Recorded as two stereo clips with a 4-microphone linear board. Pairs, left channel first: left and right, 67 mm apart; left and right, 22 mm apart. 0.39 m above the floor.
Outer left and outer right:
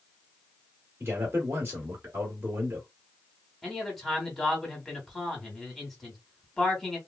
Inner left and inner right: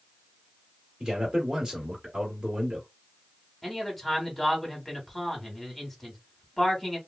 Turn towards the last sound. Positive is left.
turn(degrees=5)  # may be behind; listen again after turning